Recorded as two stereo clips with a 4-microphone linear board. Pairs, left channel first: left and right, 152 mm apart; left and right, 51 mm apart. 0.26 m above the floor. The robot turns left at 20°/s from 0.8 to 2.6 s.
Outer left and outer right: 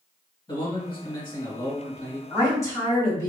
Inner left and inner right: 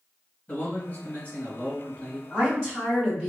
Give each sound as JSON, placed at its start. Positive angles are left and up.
{"t": 0.5, "sound": "a man speaking", "side_deg": 35, "distance_m": 1.8}
{"t": 2.3, "sound": "a woman speaking", "side_deg": 20, "distance_m": 1.6}